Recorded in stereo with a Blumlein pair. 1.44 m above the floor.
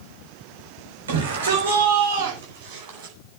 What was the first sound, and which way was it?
A shout, 65° right.